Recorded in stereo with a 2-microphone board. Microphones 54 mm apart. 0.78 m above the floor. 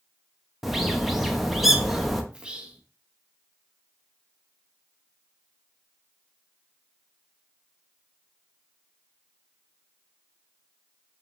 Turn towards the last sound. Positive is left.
turn(degrees=-15)  # may be behind; listen again after turning